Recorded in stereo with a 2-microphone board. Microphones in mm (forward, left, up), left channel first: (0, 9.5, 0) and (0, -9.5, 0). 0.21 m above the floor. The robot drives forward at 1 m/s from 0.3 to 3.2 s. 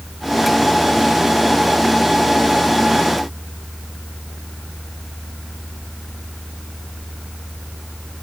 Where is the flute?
No flute in this recording.